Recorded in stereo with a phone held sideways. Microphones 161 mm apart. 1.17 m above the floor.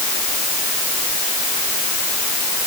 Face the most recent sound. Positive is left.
No sound to turn to.